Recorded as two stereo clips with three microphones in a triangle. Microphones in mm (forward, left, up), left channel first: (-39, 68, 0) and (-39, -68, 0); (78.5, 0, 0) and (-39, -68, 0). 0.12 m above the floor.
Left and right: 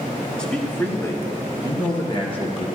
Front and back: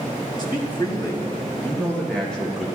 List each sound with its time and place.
0.4 s a man speaking: 10° left, 1.7 m; by 2.7 s 120° left, 2 m